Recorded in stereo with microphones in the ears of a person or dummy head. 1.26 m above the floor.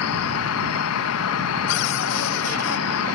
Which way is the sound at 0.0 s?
80° left.